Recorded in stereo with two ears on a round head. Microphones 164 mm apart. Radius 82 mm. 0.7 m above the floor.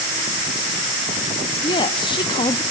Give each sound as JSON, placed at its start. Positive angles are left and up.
{"t": 1.6, "sound": "a woman speaking", "side_deg": 25, "distance_m": 0.7}